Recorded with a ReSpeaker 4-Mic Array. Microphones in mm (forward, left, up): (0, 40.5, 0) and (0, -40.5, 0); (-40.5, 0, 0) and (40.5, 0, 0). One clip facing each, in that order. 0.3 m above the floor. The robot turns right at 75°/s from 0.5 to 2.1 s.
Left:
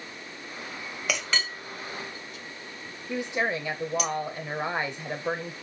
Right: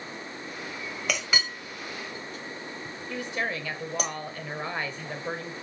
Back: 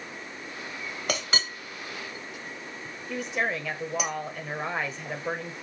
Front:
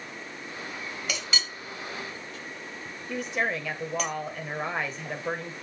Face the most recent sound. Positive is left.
turn(degrees=90)